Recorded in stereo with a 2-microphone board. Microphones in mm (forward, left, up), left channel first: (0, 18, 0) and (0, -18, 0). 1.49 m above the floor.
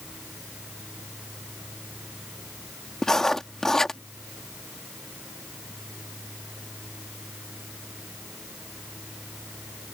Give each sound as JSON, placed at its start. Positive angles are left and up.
{"t": 3.0, "sound": "writing", "side_deg": 15}